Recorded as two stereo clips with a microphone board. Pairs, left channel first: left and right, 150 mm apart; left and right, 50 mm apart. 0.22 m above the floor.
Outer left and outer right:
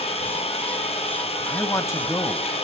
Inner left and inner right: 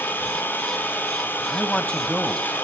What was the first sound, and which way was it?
An engine running, 40° left (ahead or behind).